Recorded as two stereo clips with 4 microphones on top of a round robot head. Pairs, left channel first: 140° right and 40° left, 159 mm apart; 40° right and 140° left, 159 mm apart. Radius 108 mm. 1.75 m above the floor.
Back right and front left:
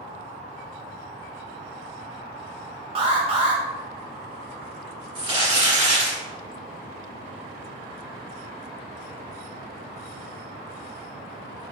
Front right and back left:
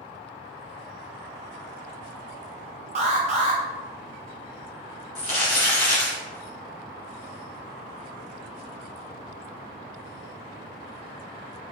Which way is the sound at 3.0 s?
95° left.